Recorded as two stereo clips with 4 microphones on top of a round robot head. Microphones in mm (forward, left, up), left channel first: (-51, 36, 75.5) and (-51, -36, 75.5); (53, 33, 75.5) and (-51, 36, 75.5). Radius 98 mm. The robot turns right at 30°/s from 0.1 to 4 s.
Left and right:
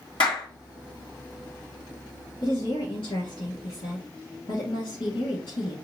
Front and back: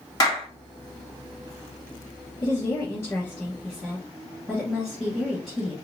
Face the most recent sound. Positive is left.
turn(degrees=100)